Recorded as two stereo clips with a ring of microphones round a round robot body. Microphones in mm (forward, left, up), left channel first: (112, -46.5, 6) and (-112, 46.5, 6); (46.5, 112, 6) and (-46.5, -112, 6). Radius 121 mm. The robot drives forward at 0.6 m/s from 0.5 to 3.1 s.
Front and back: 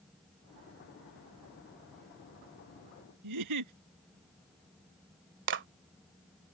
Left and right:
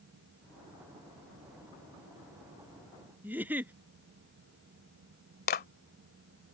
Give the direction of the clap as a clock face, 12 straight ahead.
8 o'clock.